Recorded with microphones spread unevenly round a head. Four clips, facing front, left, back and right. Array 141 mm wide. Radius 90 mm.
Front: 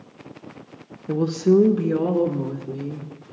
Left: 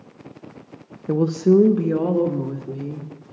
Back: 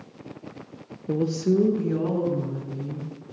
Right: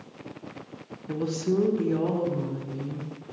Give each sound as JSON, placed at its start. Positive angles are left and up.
{"t": 1.1, "sound": "a woman speaking", "azimuth_deg": 105, "distance_m": 0.8}